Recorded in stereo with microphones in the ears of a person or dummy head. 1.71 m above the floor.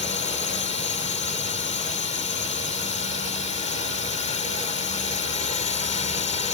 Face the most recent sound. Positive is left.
turn(degrees=35)  # may be behind; listen again after turning